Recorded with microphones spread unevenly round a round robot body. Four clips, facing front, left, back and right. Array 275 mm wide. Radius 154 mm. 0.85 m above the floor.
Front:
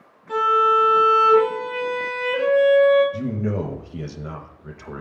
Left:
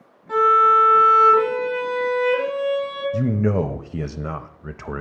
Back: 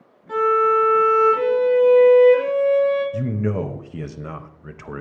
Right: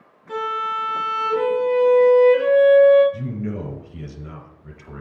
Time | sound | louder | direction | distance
0.3 | a violin | left 10 dB, even | 105° right | 3 m
3.1 | a man speaking | left 8 dB, back 1 dB | 85° left | 0.7 m